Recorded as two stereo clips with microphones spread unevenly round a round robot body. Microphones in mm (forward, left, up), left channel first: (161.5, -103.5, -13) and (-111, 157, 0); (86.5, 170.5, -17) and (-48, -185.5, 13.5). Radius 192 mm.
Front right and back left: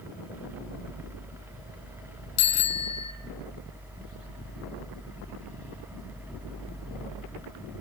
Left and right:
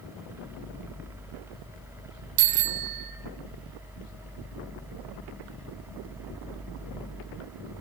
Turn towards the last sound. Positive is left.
turn(degrees=-90)